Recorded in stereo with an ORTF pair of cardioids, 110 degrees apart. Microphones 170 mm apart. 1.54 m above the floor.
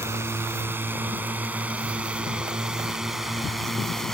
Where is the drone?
15° right; by 4.1 s 5° left.